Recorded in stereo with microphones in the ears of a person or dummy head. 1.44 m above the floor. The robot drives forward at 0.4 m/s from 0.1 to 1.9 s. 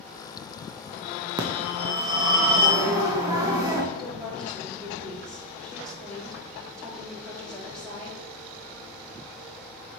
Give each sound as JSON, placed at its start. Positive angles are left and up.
{"t": 1.4, "sound": "a phone ringing", "side_deg": -20, "distance_m": 0.8}
{"t": 3.9, "sound": "a woman speaking", "side_deg": 5, "distance_m": 3.0}